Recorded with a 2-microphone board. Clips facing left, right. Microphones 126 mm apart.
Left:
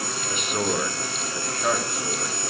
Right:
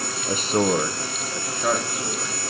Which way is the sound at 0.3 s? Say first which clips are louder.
Right 6 dB; 35° right (ahead or behind).